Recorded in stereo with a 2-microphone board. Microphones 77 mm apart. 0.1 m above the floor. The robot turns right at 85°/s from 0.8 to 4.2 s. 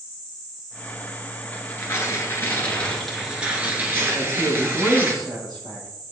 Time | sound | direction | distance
1.5 | tearing paper | 45° left | 1.6 m
4.1 | a man speaking | 65° right (ahead or behind) | 3 m